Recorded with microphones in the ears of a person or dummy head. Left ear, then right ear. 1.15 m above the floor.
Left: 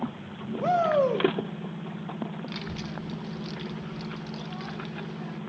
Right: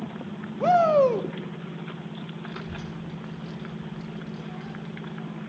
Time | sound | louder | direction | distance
0.6 | a shout | right 4 dB | 15° right (ahead or behind) | 0.6 m
2.5 | a child speaking | left 1 dB | 40° left (ahead or behind) | 1.1 m